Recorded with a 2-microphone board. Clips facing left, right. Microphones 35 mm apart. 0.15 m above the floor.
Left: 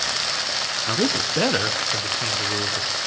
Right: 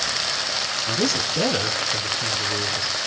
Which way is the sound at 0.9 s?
30° left (ahead or behind).